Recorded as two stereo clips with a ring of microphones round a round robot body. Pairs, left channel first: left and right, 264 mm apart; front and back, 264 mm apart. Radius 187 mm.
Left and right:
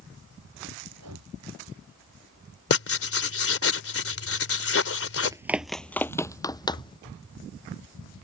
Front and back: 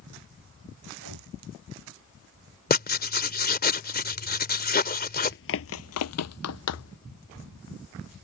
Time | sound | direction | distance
0.9 | breathing | 140° right | ?
2.7 | writing | 55° left | ?
5.2 | running footsteps | 25° right | ?